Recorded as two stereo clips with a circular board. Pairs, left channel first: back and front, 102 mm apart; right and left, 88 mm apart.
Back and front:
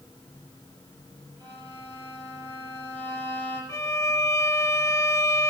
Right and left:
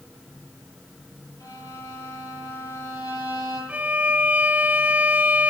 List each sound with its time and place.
1.4 s a violin: 40° right, 8 m
3.7 s a violin: 150° left, 0.5 m